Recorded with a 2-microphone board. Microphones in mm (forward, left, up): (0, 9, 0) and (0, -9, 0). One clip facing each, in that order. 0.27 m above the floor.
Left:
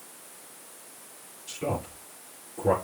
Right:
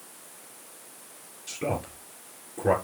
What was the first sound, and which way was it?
A man speaking, 45° right (ahead or behind).